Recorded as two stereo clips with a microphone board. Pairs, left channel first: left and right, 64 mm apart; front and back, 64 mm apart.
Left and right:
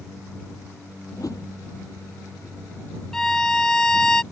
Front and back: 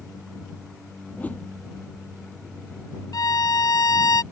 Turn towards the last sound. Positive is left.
turn(degrees=10)